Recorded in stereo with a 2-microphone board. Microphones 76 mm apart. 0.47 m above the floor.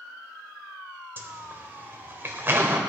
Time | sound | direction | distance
1.2 | a zipper | 30° right (ahead or behind) | 1.7 m